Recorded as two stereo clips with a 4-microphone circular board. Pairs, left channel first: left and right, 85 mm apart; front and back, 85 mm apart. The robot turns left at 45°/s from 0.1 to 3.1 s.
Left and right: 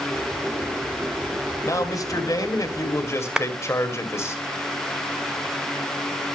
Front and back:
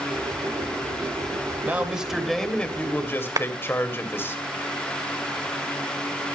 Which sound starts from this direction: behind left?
A man speaking, at 1.6 s.